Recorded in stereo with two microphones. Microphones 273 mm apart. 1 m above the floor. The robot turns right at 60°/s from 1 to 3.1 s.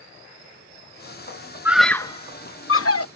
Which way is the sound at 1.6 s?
10° right (ahead or behind).